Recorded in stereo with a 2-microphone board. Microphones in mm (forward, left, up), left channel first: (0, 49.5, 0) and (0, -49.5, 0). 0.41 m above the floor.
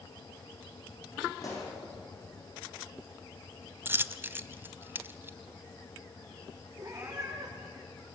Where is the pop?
35° left (ahead or behind), 9 m.